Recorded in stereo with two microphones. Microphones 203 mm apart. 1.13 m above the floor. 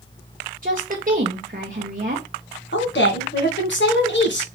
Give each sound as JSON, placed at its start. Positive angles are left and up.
{"t": 0.6, "sound": "a woman speaking", "side_deg": -45, "distance_m": 0.8}
{"t": 2.7, "sound": "a woman speaking", "side_deg": 65, "distance_m": 1.3}